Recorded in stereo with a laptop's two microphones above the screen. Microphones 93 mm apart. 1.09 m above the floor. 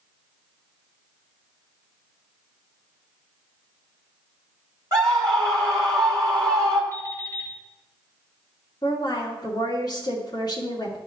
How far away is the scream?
About 3 m.